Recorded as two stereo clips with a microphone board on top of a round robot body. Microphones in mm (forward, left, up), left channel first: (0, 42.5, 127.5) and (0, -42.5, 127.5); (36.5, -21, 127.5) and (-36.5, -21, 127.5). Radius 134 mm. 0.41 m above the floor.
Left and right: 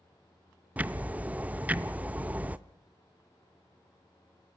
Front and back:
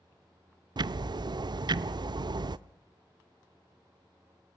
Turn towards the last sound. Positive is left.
turn(degrees=-160)